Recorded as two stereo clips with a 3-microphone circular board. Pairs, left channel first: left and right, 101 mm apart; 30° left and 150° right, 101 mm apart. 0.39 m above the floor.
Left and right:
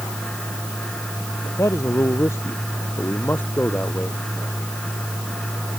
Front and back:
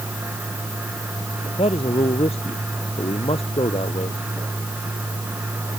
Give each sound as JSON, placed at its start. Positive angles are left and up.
{"t": 1.6, "sound": "a man speaking", "azimuth_deg": 30}